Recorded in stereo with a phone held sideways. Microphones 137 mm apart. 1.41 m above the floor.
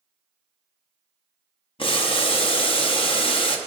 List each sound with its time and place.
1.8 s boiling: 40° left (ahead or behind), 0.9 m